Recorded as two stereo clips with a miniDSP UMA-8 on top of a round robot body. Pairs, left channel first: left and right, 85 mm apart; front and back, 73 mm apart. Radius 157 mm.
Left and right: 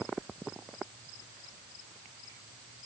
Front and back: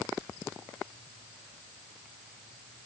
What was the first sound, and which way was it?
Only background noise.